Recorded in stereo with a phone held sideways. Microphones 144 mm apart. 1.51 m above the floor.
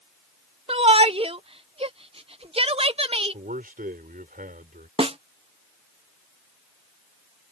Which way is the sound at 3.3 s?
85° right.